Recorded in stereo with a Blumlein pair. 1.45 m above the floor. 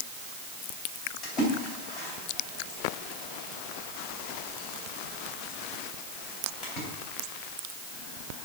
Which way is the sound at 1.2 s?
35° left.